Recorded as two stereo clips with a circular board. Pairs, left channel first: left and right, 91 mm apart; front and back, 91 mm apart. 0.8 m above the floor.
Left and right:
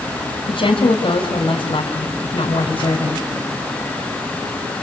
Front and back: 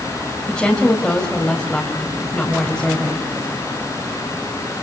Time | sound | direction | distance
0.5 | a woman speaking | 85° left | 4 m